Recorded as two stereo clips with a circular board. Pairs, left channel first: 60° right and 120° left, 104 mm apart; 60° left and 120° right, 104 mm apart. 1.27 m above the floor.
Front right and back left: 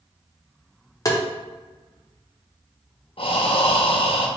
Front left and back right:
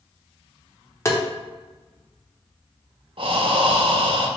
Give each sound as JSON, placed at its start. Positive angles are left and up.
{"t": 1.1, "sound": "tapping", "azimuth_deg": -5, "distance_m": 0.7}
{"t": 3.2, "sound": "breathing", "azimuth_deg": -90, "distance_m": 0.6}